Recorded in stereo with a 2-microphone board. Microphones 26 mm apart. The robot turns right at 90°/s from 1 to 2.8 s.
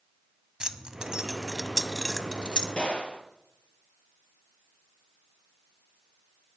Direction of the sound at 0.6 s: 35° right (ahead or behind).